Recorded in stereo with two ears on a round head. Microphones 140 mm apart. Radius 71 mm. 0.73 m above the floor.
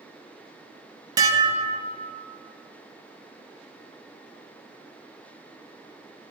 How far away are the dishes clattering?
About 0.7 m.